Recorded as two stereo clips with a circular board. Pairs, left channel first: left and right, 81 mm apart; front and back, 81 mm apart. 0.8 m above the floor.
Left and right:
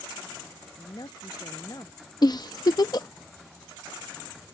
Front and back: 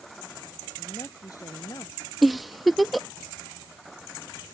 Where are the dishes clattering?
No dishes clattering in this recording.